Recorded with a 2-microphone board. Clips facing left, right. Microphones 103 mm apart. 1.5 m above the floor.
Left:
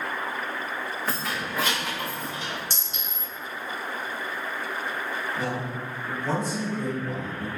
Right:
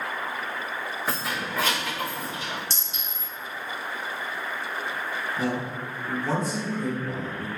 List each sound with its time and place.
1.1 s keys jangling: 15° right (ahead or behind), 0.9 m; by 2.6 s 30° left (ahead or behind), 1.4 m
2.7 s a clink: 50° left (ahead or behind), 1.3 m
5.4 s a man speaking: 25° left (ahead or behind), 1.7 m